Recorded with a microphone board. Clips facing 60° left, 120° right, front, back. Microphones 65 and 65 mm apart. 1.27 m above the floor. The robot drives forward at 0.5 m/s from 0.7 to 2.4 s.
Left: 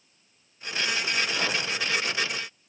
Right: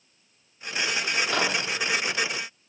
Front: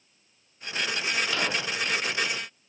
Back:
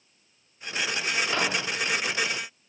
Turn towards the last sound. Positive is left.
turn(degrees=-125)